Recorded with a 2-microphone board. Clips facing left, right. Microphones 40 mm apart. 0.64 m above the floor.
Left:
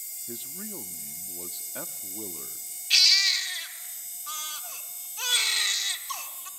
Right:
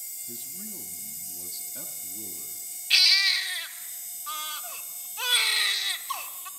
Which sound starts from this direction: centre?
A baby crying, at 2.9 s.